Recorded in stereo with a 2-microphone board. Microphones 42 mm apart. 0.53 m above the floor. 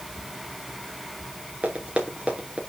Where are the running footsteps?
25° right (ahead or behind), 3.5 m.